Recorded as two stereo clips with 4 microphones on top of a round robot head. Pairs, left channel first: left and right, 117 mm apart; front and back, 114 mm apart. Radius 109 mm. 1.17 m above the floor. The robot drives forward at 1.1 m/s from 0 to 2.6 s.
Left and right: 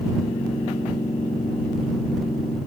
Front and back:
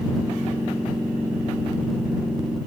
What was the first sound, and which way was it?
Only background noise.